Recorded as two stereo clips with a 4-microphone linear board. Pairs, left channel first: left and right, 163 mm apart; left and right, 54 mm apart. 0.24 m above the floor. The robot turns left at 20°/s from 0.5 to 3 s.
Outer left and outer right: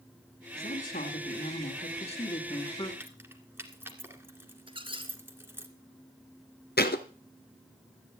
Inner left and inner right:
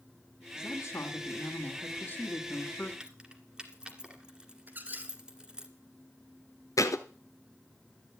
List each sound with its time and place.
0.6 s a woman speaking: 75° left, 2.5 m; by 2.9 s 30° left, 2.5 m
3.0 s keys jangling: 10° right (ahead or behind), 1.8 m
4.7 s a squeak: 30° right (ahead or behind), 1.7 m
6.8 s a thud: 75° left (ahead or behind), 1.2 m